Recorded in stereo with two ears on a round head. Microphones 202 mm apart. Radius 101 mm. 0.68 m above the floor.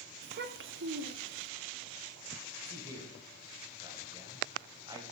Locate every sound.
0.2 s a child speaking: 35° right (ahead or behind), 0.5 m; by 1.5 s 70° right (ahead or behind), 1.5 m
2.6 s a man speaking: 15° right (ahead or behind), 3 m